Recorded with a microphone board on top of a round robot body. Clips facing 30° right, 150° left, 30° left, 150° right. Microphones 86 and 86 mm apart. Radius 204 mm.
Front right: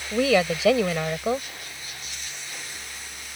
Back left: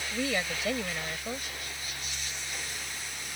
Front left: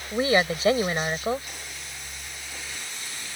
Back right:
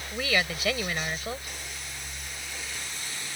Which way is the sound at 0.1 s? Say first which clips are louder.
Front right 12 dB, front left 7 dB; 35° right.